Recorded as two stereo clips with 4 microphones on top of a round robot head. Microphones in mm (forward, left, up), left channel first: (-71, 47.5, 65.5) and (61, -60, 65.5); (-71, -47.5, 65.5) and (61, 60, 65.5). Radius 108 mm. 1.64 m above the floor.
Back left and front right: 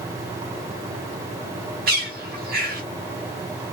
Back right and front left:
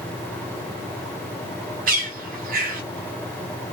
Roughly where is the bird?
Ahead.